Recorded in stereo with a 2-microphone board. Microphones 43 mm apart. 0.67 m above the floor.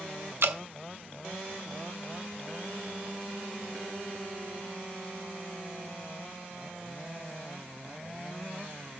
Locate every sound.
0.4 s dripping: 75° right (ahead or behind), 1.2 m